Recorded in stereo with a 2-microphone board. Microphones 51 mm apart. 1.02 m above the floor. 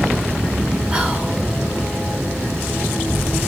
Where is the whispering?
20° right (ahead or behind), 0.8 m.